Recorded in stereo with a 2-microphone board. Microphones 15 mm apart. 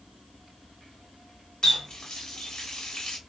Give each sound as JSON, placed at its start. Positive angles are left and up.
{"t": 1.6, "sound": "a running tap", "side_deg": 55, "distance_m": 1.1}